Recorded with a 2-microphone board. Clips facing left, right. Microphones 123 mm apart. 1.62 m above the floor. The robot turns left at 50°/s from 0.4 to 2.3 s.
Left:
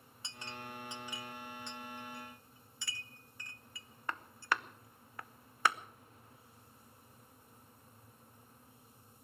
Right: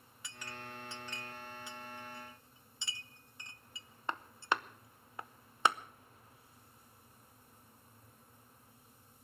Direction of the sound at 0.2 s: 30° left (ahead or behind).